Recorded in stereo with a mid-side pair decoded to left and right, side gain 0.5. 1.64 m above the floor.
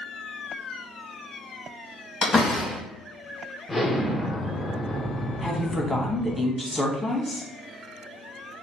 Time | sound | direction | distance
2.2 | a door slam | 40° left | 1.6 m
3.7 | an explosion | 20° left | 0.7 m
5.4 | a woman speaking | 20° left | 1.1 m